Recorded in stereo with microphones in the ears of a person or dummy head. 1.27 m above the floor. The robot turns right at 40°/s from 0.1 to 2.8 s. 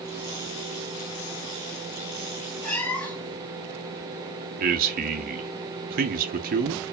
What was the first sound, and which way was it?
A cat meowing, 5° left (ahead or behind).